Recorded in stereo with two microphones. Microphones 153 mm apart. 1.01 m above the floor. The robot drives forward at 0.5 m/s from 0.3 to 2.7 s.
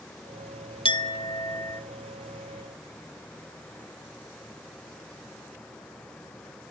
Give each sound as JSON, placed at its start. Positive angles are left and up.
{"t": 0.8, "sound": "a clink", "side_deg": 35, "distance_m": 0.8}